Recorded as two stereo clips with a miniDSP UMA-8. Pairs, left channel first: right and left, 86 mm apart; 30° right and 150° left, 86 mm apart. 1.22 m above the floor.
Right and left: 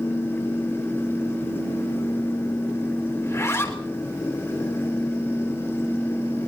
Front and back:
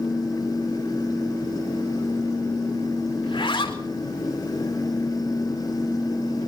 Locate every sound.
3.2 s a zipper: 40° right, 3.5 m